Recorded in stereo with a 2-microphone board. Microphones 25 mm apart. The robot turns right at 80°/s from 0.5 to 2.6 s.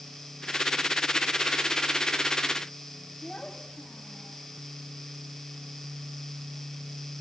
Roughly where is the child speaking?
Left.